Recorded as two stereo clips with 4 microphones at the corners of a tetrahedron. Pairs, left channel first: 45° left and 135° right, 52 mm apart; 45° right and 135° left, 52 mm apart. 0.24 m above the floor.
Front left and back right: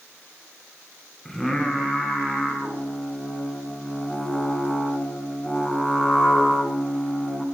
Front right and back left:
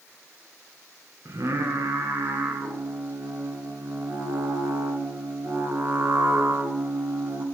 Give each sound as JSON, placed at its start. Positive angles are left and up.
{"t": 1.2, "sound": "singing", "azimuth_deg": 130, "distance_m": 1.5}